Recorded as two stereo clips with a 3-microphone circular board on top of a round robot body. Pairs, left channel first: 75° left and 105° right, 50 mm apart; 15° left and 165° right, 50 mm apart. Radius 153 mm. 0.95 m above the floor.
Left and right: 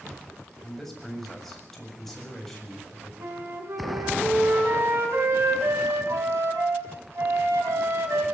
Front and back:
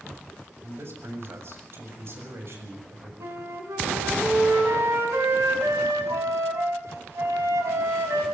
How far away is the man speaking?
About 7 m.